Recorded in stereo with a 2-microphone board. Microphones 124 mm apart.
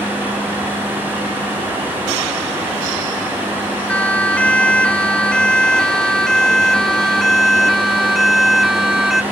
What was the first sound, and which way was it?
A siren, 10° left (ahead or behind).